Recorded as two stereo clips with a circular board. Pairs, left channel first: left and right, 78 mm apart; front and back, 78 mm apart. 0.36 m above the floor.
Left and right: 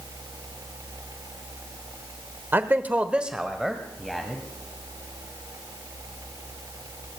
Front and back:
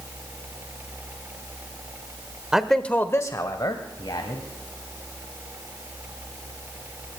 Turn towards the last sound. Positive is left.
turn(degrees=0)